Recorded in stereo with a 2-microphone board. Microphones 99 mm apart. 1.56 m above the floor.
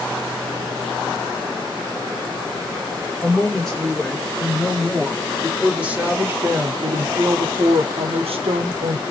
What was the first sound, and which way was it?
A woman speaking, 5° left (ahead or behind).